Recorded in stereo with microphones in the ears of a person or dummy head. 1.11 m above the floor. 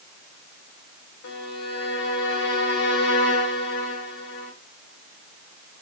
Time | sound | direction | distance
1.2 | a violin | 70° left (ahead or behind) | 1.8 m